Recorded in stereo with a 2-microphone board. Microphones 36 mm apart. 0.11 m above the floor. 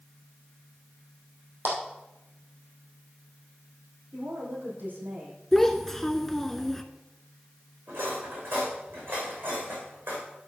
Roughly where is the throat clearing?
No throat clearing in this recording.